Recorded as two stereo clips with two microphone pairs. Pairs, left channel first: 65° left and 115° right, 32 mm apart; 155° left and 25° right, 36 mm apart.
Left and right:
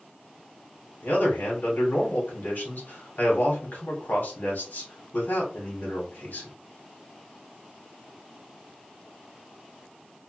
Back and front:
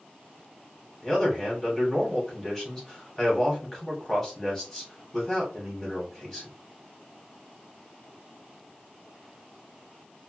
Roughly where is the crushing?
I don't hear crushing.